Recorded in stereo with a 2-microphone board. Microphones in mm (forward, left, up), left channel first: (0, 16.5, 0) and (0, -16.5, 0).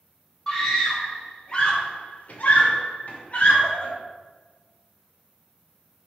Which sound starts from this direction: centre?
A scream, at 0.5 s.